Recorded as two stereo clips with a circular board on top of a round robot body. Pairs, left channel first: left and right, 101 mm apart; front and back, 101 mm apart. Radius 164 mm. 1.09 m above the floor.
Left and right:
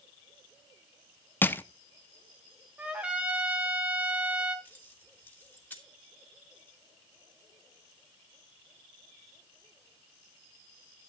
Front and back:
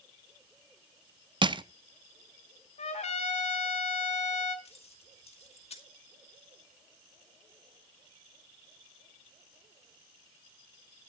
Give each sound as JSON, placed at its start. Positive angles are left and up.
{"t": 1.4, "sound": "crushing", "azimuth_deg": 155, "distance_m": 1.0}
{"t": 2.8, "sound": "a trumpet", "azimuth_deg": -10, "distance_m": 1.2}
{"t": 4.7, "sound": "keys jangling", "azimuth_deg": 15, "distance_m": 2.5}